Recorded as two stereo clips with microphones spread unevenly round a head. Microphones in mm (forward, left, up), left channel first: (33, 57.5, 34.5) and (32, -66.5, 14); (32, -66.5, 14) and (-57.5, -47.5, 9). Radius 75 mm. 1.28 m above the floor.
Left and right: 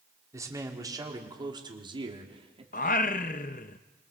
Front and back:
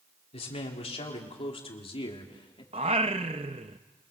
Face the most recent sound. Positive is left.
turn(degrees=120)